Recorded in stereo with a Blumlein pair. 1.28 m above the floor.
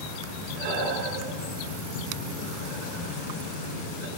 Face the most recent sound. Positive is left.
turn(degrees=-45)